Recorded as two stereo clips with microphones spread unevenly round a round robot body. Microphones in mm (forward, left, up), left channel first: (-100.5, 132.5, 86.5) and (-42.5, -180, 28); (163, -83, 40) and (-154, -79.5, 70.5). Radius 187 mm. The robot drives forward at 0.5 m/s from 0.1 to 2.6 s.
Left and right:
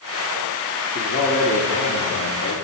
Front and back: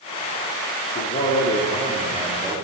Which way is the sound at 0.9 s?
35° left.